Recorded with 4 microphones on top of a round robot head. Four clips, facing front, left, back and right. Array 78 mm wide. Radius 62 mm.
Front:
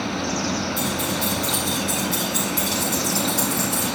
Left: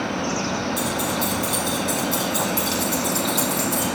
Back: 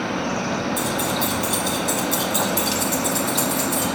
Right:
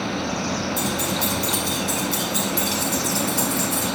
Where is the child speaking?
No child speaking in this recording.